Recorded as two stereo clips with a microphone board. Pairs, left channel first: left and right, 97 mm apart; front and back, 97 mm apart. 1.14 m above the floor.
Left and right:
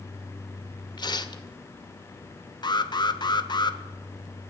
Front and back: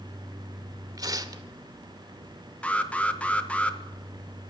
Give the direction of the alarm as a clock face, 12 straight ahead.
10 o'clock.